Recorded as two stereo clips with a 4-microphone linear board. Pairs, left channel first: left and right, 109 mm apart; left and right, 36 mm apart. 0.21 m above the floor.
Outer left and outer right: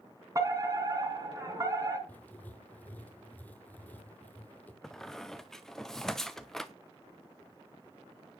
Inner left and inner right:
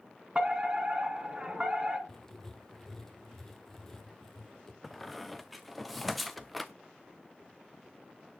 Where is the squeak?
5° left (ahead or behind), 0.9 m.